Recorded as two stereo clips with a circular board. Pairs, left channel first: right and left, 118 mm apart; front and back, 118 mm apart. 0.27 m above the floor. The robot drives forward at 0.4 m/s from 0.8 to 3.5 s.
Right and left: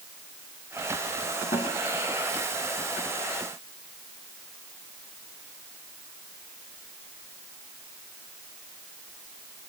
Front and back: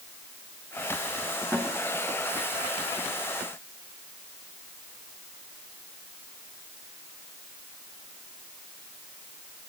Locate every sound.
1.5 s a snare drum: 110° right, 5.5 m